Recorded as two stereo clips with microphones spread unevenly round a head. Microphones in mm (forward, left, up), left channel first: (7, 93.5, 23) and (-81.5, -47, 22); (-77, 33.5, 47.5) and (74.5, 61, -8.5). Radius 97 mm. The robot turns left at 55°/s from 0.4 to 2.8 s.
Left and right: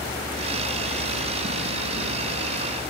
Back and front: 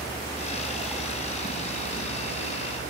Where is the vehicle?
125° left; by 2.9 s 5° right.